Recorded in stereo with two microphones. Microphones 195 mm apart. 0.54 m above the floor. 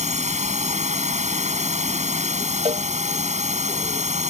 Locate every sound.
0.0 s a drone: 35° right (ahead or behind)
2.6 s a cowbell: 30° right (ahead or behind)